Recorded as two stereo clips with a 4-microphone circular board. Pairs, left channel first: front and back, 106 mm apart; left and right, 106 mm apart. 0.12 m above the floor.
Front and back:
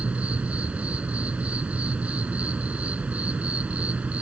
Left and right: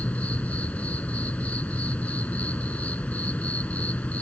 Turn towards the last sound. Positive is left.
turn(degrees=135)